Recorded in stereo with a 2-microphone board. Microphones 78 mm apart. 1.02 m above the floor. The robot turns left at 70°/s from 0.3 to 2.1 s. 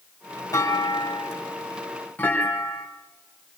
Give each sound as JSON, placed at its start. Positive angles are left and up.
{"t": 0.5, "sound": "a clunk", "azimuth_deg": 130, "distance_m": 4.5}